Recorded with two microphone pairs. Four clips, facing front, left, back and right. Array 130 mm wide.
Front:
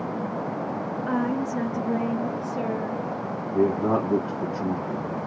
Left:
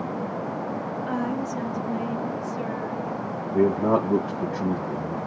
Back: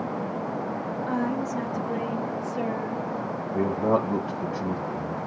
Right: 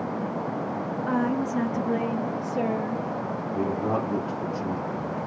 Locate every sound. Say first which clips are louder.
1.1 s a woman speaking: right 3 dB, front 2 dB; 45° right, 1.1 m; by 3.0 s 100° right, 3 m
3.5 s a man speaking: left 7 dB, front 2 dB; 110° left, 1.8 m